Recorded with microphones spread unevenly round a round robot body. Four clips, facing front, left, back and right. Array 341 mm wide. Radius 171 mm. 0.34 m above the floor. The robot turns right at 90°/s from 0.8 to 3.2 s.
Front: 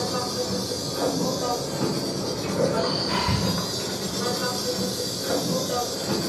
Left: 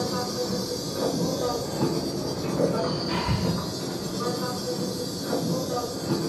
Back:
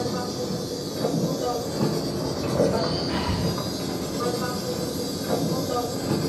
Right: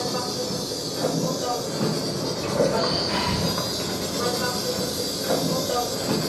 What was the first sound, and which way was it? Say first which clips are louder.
An insect: even, even; 55° left.